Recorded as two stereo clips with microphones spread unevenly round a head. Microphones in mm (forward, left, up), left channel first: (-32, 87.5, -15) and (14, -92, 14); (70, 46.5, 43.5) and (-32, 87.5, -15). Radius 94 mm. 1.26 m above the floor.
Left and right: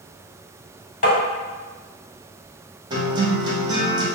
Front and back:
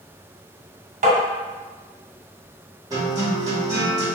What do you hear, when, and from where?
1.0 s tapping: 155° left, 1.4 m
2.9 s a guitar: 115° right, 0.8 m